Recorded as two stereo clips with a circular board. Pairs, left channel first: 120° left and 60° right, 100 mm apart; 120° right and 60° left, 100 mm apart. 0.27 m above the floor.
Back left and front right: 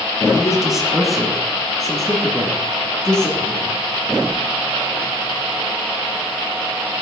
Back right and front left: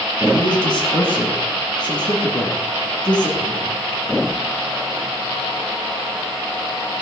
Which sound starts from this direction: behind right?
A man speaking, at 0.3 s.